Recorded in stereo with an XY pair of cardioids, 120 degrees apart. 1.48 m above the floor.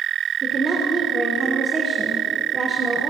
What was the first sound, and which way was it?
A woman speaking, 30° right.